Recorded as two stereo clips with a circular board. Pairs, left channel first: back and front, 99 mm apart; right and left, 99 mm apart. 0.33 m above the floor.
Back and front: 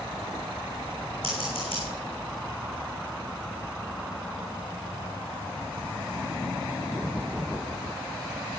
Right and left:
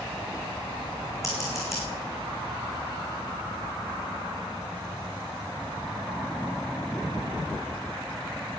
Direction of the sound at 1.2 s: 150° right.